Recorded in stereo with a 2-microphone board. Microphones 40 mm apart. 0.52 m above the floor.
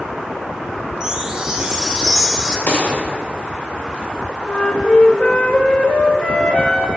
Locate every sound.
1.0 s a chime: 20° right (ahead or behind), 0.9 m
2.7 s a gunshot: 55° left (ahead or behind), 1.7 m
4.5 s a flute: 35° left (ahead or behind), 0.9 m